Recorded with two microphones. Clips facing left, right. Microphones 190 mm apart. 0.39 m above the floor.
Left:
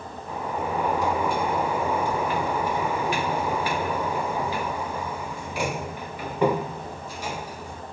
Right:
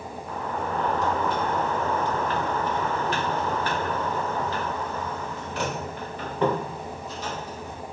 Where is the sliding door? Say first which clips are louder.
Left 2 dB; 10° left (ahead or behind), 0.6 m.